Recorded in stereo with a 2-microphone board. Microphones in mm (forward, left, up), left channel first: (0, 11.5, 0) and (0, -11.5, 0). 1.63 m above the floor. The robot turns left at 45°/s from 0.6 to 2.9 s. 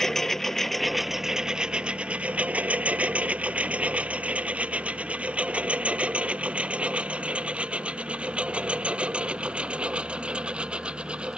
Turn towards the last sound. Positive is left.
turn(degrees=-45)  # may be behind; listen again after turning